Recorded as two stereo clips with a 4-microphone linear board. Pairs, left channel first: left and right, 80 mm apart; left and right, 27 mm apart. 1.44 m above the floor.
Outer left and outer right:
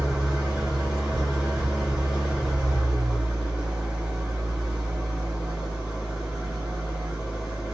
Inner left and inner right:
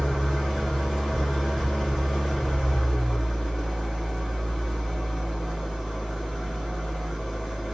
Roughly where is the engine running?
Centre.